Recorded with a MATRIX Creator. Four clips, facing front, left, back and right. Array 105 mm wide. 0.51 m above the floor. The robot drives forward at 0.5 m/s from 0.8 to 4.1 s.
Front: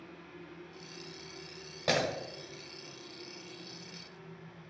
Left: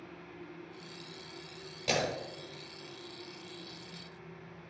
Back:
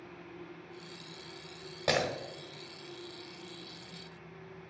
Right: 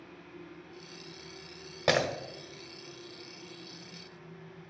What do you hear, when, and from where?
1.9 s breaking glass: 95° right, 0.8 m; by 2.1 s 105° right, 0.8 m